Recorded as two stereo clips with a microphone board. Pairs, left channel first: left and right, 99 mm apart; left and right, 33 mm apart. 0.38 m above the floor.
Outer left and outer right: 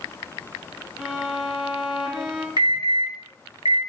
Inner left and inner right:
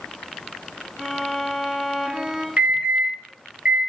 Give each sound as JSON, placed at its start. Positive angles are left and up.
{"t": 1.0, "sound": "a violin", "side_deg": -10, "distance_m": 2.0}
{"t": 2.6, "sound": "an alarm", "side_deg": -45, "distance_m": 1.8}